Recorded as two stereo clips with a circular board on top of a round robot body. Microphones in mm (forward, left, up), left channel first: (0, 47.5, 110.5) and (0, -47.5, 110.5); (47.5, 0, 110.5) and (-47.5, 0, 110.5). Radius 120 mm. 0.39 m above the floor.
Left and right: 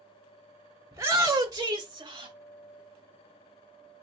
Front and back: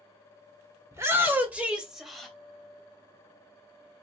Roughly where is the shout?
Behind right.